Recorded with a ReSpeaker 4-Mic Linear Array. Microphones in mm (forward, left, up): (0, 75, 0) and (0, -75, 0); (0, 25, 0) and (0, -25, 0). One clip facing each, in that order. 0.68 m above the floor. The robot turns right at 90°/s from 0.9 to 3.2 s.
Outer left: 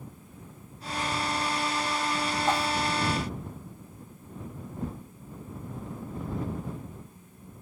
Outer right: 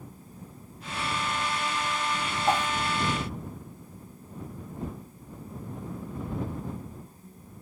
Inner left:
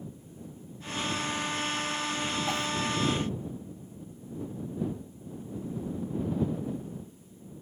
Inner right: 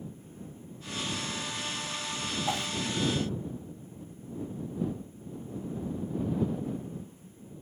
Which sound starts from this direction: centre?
A whoosh, at 2.5 s.